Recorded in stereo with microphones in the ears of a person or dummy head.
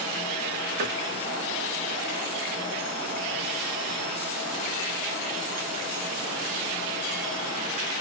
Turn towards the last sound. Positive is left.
turn(degrees=-50)  # may be behind; listen again after turning